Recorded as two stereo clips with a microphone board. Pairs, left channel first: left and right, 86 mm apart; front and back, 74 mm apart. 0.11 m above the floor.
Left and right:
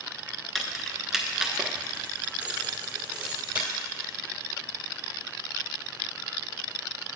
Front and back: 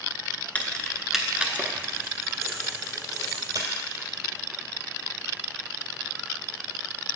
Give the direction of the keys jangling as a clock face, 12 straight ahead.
12 o'clock.